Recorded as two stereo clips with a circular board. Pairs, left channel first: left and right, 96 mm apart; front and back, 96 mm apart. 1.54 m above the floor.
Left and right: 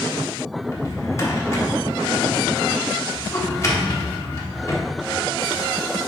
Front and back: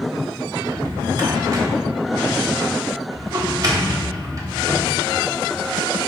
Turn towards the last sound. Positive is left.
turn(degrees=140)